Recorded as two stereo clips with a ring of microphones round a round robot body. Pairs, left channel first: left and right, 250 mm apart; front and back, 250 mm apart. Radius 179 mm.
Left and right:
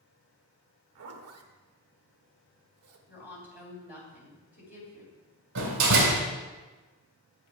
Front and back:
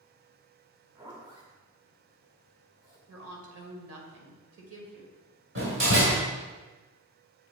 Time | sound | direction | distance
0.9 | a zipper | 105° right | 0.8 m
3.1 | a woman speaking | 155° left | 2.5 m
5.5 | a door slam | 120° right | 1.9 m